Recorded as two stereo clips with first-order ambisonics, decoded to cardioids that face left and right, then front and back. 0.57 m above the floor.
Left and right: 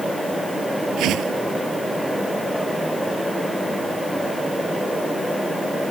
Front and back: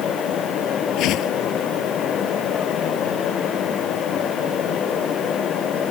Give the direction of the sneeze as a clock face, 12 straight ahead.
No sneeze in this recording.